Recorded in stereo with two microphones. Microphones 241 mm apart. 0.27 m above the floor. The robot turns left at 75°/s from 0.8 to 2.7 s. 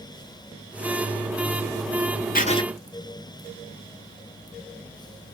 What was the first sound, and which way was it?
Writing, 40° left (ahead or behind).